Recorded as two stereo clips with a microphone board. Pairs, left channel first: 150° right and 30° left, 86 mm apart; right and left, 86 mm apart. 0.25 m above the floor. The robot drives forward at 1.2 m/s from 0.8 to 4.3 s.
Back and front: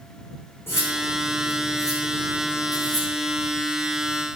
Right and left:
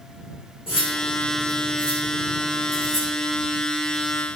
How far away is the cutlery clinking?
About 8.5 m.